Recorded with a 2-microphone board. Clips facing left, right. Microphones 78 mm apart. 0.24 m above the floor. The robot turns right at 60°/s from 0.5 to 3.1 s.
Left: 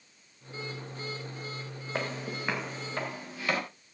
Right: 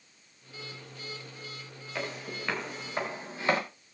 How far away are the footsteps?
About 6.5 m.